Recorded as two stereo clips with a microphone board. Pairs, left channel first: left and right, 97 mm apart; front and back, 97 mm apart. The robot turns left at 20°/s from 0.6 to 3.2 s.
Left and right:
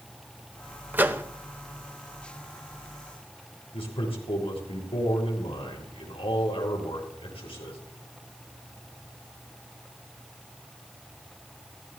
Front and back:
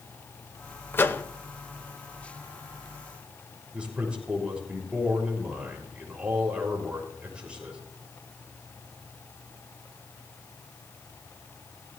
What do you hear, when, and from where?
0.9 s a microwave: 40° right, 0.8 m; by 1.2 s 45° right, 0.8 m
3.7 s a man speaking: 100° left, 6.5 m